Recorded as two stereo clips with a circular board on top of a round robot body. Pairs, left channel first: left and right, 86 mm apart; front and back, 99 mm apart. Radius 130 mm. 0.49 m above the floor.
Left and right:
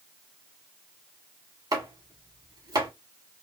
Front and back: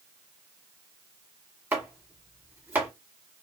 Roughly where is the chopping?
Right.